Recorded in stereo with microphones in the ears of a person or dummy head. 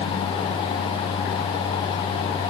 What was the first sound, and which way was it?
Only background noise.